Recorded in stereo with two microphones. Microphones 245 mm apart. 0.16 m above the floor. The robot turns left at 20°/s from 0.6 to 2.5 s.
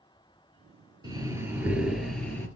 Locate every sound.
1.0 s breathing: 20° right (ahead or behind), 1.9 m; by 2.5 s 10° left (ahead or behind), 1.9 m